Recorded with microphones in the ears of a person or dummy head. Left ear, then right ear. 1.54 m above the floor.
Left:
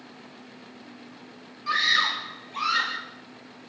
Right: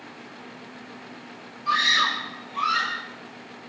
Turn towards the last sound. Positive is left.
turn(degrees=30)  # may be behind; listen again after turning